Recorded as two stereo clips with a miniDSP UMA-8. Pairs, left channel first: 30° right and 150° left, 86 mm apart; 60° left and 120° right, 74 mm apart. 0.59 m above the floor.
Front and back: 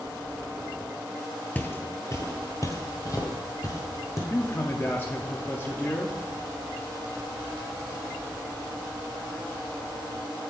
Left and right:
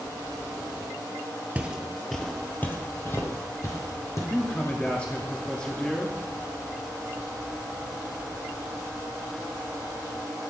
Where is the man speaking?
Straight ahead, 0.6 m.